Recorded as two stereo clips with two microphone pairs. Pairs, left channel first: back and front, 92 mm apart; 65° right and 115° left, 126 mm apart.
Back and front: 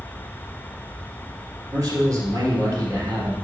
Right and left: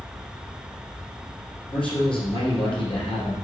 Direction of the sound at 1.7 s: 40° right.